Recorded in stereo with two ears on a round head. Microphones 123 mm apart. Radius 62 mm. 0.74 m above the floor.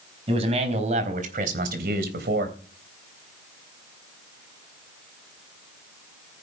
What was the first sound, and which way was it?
A man speaking, 45° right (ahead or behind).